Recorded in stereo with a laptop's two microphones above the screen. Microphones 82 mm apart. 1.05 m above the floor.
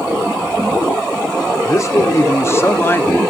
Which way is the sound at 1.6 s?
40° left (ahead or behind).